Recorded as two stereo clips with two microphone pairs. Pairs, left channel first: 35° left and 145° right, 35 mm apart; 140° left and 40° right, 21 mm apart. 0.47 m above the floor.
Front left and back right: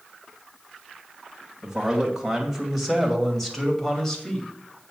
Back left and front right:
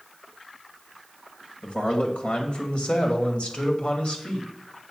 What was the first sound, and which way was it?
A man speaking, 150° left.